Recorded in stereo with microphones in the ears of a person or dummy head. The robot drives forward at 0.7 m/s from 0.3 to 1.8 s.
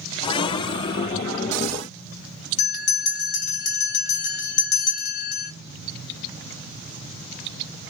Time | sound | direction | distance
2.6 | a bell | 80° left | 1.0 m